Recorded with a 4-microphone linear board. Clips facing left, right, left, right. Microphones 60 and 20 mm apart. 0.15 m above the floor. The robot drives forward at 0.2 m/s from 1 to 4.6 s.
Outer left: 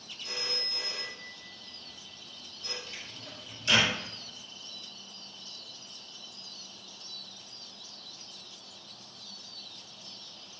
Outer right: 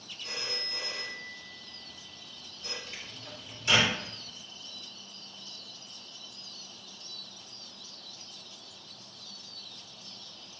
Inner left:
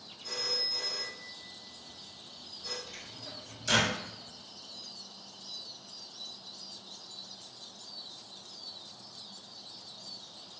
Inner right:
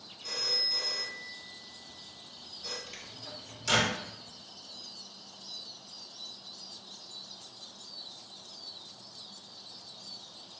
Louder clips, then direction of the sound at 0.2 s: Even, inner right 2 dB; 30° right (ahead or behind).